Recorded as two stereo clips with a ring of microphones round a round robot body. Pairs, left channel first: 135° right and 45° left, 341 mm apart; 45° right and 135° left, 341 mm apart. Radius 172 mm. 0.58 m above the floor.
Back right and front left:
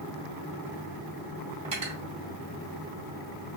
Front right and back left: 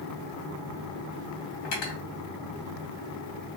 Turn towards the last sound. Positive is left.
turn(degrees=-25)